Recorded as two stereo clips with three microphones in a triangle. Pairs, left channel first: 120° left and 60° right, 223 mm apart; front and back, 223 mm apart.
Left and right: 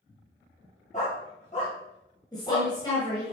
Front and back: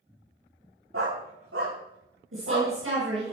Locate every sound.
0.9 s a dog barking: 175° left, 8 m; by 2.7 s straight behind, 9 m
2.3 s a woman speaking: 170° right, 5.5 m